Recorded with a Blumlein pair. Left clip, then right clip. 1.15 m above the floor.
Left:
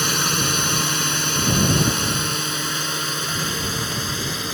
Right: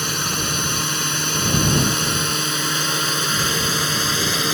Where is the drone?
10° left; by 4.5 s 20° right.